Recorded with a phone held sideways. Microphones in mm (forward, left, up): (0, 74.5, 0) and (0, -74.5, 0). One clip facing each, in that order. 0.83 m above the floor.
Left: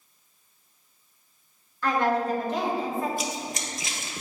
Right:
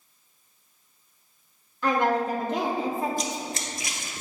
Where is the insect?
No insect in this recording.